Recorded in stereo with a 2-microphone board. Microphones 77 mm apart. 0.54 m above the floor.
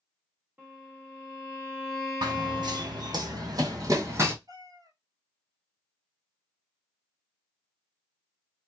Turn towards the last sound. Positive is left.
turn(degrees=-55)  # may be behind; listen again after turning